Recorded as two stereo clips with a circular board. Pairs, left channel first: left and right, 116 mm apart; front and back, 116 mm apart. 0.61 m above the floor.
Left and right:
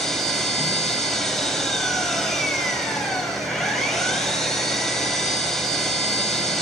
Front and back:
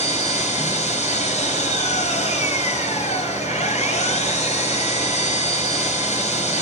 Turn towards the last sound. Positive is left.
turn(degrees=0)